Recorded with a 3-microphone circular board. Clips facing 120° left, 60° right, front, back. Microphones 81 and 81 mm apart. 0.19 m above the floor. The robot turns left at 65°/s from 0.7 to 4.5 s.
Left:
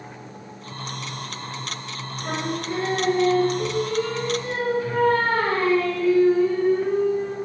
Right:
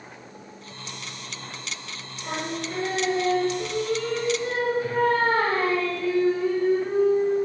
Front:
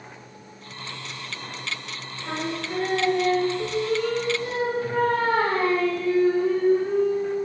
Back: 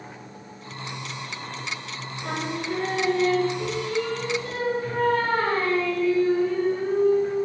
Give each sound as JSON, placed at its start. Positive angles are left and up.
{"t": 2.2, "sound": "singing", "azimuth_deg": 150, "distance_m": 3.5}